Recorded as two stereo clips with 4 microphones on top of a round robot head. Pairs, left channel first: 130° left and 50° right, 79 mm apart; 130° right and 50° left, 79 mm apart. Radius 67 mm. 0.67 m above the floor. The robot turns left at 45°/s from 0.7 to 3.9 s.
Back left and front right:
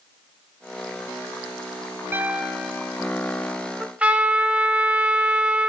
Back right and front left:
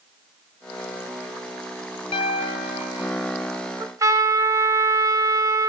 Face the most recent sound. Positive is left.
turn(degrees=20)